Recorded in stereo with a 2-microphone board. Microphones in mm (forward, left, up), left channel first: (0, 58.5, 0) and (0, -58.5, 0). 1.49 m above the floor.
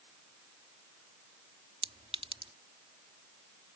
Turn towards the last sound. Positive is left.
turn(degrees=-55)  # may be behind; listen again after turning